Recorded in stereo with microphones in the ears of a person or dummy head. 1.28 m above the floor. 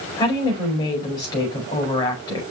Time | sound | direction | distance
0.2 | a woman speaking | 25° left (ahead or behind) | 5 m